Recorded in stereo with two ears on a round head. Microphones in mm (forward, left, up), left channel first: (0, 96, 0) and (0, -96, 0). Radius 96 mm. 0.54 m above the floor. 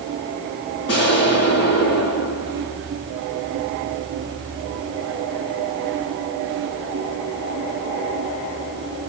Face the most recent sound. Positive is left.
turn(degrees=50)  # may be behind; listen again after turning